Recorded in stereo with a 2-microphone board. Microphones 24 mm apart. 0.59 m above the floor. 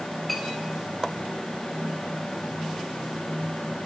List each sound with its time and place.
0.3 s a clink: 5° left (ahead or behind), 4.5 m